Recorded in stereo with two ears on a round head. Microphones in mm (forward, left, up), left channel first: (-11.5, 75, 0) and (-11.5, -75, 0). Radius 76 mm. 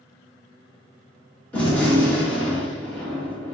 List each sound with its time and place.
1.5 s a gunshot: 10° left (ahead or behind), 1.8 m